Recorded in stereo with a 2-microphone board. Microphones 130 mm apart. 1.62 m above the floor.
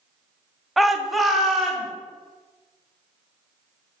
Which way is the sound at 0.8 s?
Centre (ahead or behind).